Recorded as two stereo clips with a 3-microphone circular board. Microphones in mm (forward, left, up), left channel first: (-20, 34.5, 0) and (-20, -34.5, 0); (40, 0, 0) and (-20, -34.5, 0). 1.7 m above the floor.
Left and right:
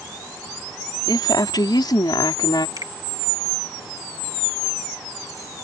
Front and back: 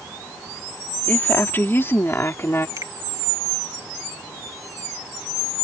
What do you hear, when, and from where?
1.1 s a woman speaking: 90° left; by 2.7 s 85° left
2.8 s a finger snap: 115° right